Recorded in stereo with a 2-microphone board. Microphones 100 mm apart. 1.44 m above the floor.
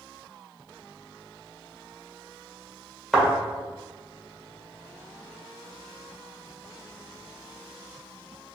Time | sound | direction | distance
3.1 | a thud | centre (ahead or behind) | 1.7 m